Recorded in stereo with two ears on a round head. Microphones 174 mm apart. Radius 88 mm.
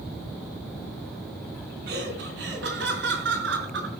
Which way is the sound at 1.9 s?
60° right (ahead or behind).